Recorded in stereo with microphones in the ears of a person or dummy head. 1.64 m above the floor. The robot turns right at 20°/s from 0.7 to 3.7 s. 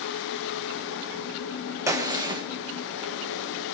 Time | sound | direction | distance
1.9 | a gunshot | 15° right (ahead or behind) | 1.4 m